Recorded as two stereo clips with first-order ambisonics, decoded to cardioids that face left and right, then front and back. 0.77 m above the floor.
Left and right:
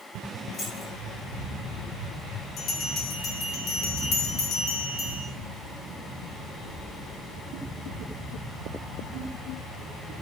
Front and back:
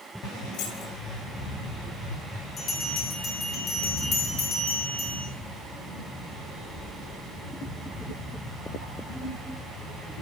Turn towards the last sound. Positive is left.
turn(degrees=50)